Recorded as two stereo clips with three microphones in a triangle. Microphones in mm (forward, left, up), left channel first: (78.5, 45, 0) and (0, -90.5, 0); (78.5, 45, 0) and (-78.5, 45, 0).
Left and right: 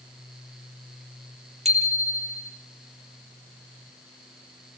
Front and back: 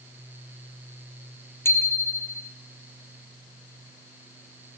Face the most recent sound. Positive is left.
turn(degrees=-75)